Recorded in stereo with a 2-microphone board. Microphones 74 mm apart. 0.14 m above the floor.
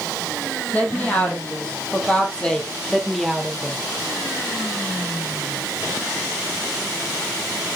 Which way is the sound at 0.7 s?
20° left (ahead or behind).